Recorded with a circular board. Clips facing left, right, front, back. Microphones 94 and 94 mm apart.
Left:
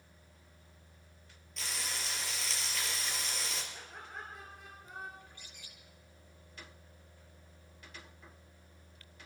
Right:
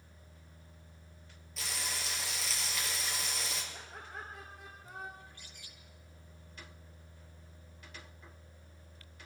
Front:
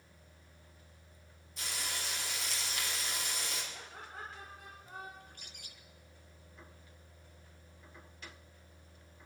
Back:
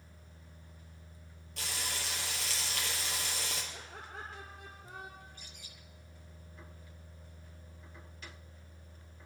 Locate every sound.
1.6 s frying: straight behind, 5 m
3.7 s laughter: straight behind, 3 m
5.2 s a bird: 20° left, 3 m